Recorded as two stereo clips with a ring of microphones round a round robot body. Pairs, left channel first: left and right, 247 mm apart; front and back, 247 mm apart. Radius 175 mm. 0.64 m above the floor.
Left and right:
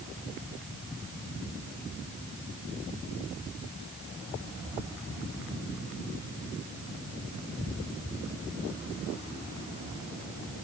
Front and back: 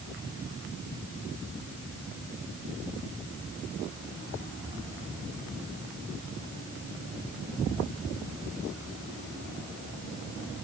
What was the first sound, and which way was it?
Only background noise.